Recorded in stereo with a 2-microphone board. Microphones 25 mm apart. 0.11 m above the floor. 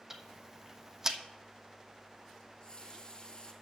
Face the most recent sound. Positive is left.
turn(degrees=30)  # may be behind; listen again after turning